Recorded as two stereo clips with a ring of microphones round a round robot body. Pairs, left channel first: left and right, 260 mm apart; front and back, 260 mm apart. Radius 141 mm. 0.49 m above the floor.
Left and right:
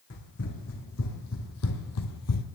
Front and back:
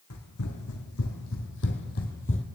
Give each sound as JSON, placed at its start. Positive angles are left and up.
{"t": 0.1, "sound": "running footsteps", "azimuth_deg": 40, "distance_m": 2.5}